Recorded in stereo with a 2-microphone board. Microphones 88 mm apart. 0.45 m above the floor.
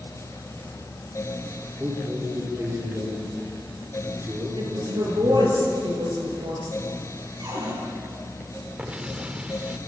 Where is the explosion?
10° right (ahead or behind), 1.1 m.